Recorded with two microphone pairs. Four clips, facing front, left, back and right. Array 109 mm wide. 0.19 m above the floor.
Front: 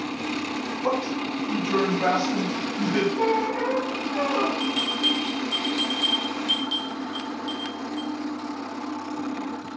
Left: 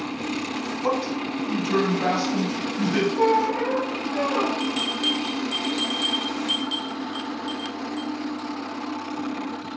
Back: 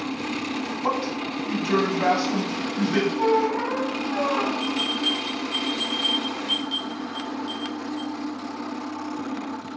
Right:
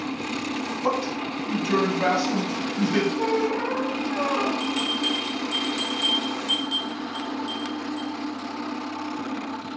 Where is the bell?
60° left, 1.4 m.